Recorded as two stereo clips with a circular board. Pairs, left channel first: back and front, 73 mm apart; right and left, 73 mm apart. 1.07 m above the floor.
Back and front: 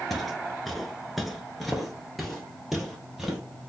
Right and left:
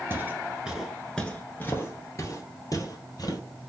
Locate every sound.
0.1 s footsteps: 95° left, 1.1 m; by 3.4 s 90° right, 2 m